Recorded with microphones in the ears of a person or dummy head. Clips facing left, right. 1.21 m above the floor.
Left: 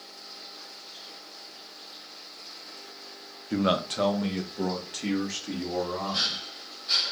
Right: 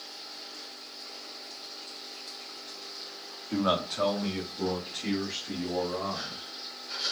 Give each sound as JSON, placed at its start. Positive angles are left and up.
{"t": 3.5, "sound": "a man speaking", "side_deg": 15, "distance_m": 0.5}